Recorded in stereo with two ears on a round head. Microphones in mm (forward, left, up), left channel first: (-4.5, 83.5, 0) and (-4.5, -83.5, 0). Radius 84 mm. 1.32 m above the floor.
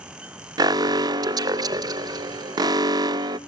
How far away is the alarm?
About 0.5 m.